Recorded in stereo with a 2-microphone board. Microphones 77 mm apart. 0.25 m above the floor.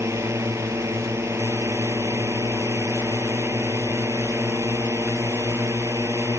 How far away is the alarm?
I don't hear an alarm.